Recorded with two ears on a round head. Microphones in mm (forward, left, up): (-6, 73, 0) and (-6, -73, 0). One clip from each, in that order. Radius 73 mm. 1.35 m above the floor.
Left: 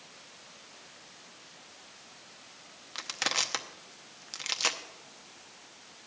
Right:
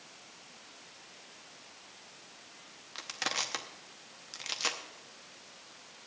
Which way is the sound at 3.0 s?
15° left (ahead or behind).